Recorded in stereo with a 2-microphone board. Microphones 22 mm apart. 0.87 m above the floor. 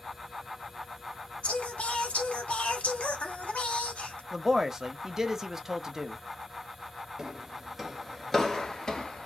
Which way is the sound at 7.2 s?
25° right (ahead or behind).